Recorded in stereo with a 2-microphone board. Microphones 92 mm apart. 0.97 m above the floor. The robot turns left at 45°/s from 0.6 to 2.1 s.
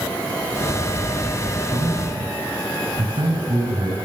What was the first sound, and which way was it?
A man speaking, 45° right (ahead or behind).